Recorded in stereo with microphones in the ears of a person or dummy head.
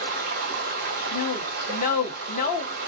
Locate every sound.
0.0 s running water: 50° right (ahead or behind), 1.8 m
1.1 s a woman speaking: 45° left (ahead or behind), 1.6 m